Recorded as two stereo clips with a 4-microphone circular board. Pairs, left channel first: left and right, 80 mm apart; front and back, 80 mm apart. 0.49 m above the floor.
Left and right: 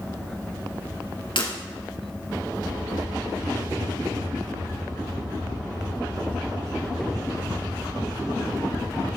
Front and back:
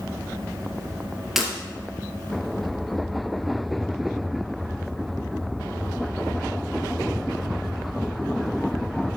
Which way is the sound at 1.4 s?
95° left.